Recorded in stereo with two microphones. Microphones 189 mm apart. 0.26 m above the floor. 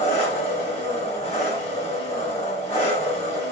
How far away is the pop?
No pop in this recording.